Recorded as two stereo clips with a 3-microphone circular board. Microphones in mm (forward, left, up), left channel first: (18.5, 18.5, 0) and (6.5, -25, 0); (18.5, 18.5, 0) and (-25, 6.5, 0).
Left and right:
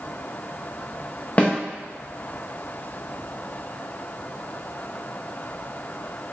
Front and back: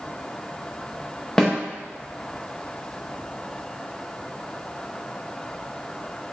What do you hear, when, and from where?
1.4 s a snare drum: 85° left, 0.9 m